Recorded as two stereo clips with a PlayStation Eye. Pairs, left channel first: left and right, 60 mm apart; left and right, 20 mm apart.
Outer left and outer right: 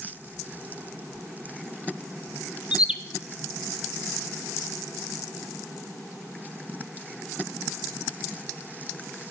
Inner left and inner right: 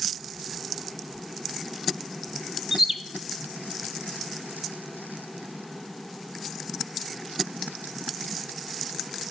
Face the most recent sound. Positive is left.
turn(degrees=-15)  # may be behind; listen again after turning